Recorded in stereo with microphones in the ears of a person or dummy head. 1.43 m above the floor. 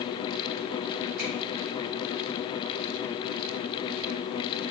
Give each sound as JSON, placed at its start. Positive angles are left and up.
{"t": 1.2, "sound": "a finger snap", "side_deg": -65, "distance_m": 3.5}